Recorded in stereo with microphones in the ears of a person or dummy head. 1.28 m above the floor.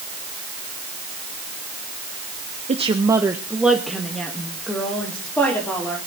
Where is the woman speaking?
30° right (ahead or behind), 0.9 m; by 6.0 s 15° left (ahead or behind), 3.5 m.